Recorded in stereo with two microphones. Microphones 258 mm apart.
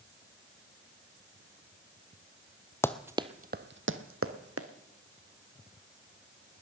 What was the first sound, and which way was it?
Running footsteps, 10° left (ahead or behind).